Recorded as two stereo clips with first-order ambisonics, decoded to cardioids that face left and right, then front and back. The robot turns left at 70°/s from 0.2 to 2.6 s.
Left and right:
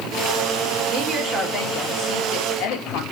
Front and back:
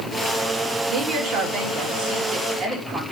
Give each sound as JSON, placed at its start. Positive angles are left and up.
{"t": 0.9, "sound": "a woman speaking", "azimuth_deg": -140, "distance_m": 2.5}